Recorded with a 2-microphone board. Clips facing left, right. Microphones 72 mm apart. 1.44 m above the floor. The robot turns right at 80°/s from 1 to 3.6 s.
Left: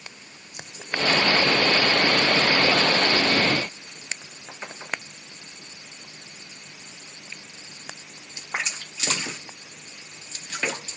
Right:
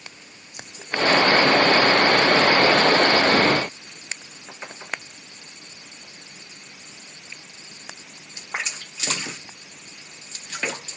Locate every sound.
Only background noise.